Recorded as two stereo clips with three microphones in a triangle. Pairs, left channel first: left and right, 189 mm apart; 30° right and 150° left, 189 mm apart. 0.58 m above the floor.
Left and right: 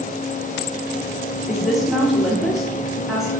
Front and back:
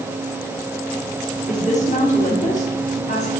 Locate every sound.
1.5 s a woman speaking: straight ahead, 1.2 m